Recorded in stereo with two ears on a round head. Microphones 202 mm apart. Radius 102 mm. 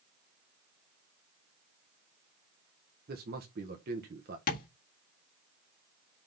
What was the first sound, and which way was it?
A man speaking, 40° right (ahead or behind).